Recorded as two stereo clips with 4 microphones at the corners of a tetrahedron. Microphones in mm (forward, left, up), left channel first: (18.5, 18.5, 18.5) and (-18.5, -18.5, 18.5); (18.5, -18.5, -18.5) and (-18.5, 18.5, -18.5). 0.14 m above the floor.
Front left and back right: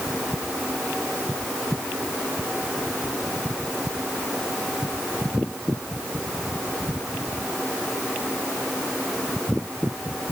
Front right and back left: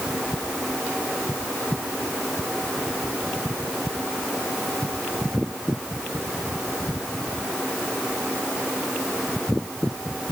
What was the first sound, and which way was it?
Only background noise.